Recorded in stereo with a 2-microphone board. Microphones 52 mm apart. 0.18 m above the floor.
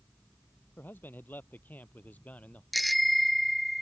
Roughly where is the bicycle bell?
Centre.